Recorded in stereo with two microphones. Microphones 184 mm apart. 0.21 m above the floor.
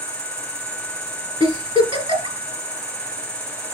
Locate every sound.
0.0 s an insect: 5° left (ahead or behind), 3 m
1.4 s a giggle: 30° right (ahead or behind), 1.9 m